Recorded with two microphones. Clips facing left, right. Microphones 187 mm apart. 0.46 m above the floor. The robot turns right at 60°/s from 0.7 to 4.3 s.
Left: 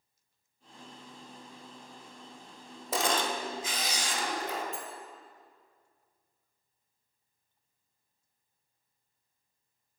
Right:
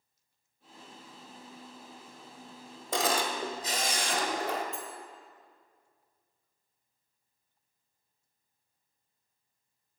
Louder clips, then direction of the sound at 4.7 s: Even; 35° left (ahead or behind).